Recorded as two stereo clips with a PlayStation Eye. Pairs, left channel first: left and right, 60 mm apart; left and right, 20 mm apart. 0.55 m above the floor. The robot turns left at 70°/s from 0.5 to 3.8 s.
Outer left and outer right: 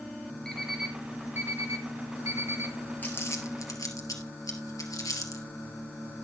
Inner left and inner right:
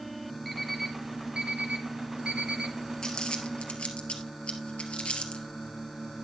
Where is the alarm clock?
10° left (ahead or behind), 3.5 m; by 2.8 s 30° right (ahead or behind), 3.5 m.